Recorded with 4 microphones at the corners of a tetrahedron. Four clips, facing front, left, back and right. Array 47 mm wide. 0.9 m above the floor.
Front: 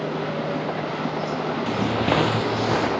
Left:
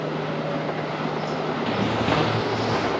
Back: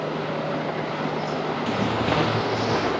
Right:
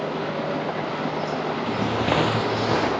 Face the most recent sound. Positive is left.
turn(degrees=-55)